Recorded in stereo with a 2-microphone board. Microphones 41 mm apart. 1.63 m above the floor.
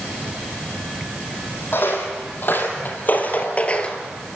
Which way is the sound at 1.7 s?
55° left (ahead or behind).